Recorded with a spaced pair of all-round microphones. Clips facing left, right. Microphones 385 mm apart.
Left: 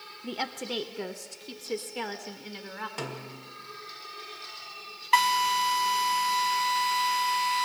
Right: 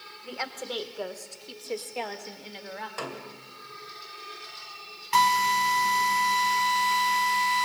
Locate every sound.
0.2 s a woman speaking: 45° left (ahead or behind), 0.8 m; by 2.9 s 15° left (ahead or behind), 2 m
3.0 s a snare drum: 40° left (ahead or behind), 2.0 m
5.1 s a drill: 50° right (ahead or behind), 4 m